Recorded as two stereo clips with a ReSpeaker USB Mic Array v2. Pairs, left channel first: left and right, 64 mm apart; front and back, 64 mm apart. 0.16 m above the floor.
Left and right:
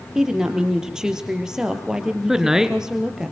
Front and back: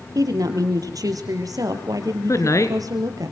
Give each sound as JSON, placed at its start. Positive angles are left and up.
{"t": 0.1, "sound": "a woman speaking", "azimuth_deg": -170, "distance_m": 4.0}
{"t": 2.3, "sound": "a woman speaking", "azimuth_deg": -10, "distance_m": 2.5}